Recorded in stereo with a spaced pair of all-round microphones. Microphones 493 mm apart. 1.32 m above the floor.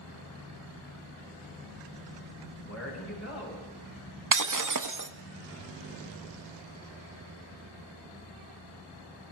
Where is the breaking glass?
40° right (ahead or behind), 0.6 m.